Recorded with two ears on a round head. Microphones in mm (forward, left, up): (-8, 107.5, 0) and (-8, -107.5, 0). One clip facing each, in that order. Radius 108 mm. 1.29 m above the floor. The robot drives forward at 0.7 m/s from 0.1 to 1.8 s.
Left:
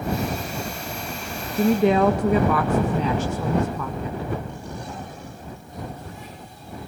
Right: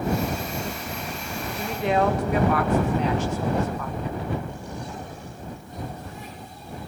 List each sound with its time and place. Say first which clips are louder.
1.6 s a woman speaking: left 7 dB; 70° left (ahead or behind), 2 m; by 4.3 s 75° left (ahead or behind), 2 m